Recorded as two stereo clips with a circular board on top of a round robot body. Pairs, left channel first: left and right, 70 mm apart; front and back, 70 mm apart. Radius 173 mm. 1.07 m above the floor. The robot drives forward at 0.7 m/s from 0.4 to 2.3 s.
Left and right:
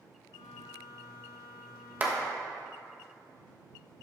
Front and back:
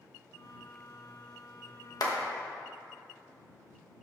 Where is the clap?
25° right, 1.2 m.